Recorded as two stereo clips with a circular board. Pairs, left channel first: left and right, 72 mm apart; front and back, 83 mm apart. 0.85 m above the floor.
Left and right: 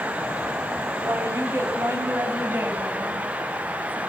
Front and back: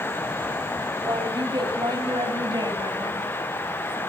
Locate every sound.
1.0 s a woman speaking: 140° right, 5.5 m; by 4.0 s 155° right, 7 m